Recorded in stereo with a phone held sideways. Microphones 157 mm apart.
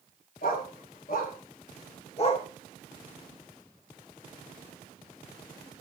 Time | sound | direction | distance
0.4 | a dog barking | 65° left (ahead or behind) | 3 m